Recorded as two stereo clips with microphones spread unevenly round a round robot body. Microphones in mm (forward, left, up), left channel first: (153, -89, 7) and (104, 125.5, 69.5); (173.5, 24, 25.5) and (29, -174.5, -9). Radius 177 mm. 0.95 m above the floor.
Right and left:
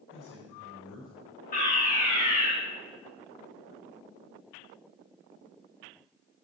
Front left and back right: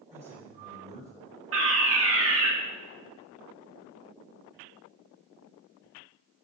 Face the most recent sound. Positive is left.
turn(degrees=-120)